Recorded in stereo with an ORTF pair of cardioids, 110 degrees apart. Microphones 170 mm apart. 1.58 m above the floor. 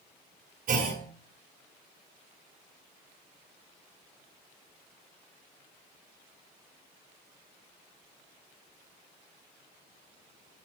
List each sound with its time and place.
0.7 s a clunk: 50° right, 3.5 m